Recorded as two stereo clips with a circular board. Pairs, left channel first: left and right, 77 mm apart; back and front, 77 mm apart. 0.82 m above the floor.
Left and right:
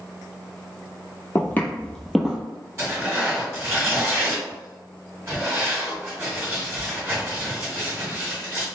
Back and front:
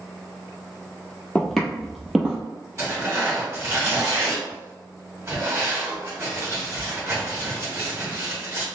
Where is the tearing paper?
40° right, 1.8 m.